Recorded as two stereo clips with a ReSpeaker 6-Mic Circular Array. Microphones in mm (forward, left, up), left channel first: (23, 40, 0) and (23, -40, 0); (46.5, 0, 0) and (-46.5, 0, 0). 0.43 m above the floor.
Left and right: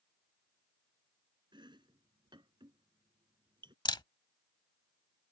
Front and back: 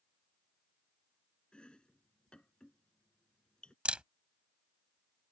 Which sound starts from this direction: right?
Chopping, at 1.5 s.